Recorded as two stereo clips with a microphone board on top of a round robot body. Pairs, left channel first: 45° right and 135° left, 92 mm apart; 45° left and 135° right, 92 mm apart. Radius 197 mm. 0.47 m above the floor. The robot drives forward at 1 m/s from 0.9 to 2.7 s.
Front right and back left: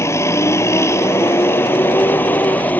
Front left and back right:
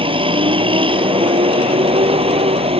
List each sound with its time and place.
0.0 s a vehicle: 105° right; by 2.8 s 120° right